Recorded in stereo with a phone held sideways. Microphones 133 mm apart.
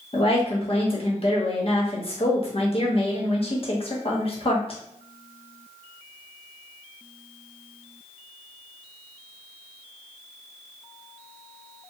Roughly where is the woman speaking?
Left.